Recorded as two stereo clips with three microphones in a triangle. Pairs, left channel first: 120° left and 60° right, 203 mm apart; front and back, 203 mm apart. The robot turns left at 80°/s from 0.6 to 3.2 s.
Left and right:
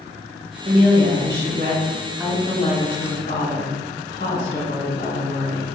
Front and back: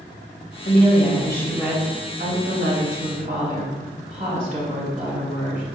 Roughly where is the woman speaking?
Ahead.